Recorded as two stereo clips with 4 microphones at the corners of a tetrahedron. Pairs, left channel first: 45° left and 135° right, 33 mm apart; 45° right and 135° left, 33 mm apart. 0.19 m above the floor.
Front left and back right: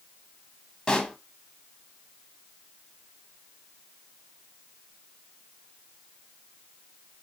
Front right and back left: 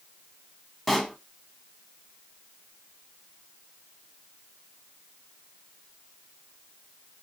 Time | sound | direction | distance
0.9 | a pop | 45° left | 0.6 m